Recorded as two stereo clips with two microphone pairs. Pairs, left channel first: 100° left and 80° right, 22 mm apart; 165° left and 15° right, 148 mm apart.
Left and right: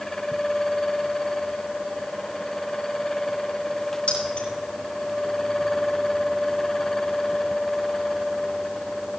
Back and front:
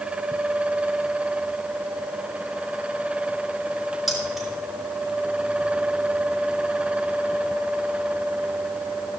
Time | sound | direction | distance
4.1 | keys jangling | 75° left | 4 m